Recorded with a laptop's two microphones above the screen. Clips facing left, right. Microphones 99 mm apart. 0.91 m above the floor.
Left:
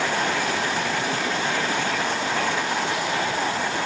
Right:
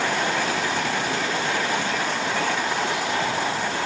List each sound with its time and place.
Only background noise.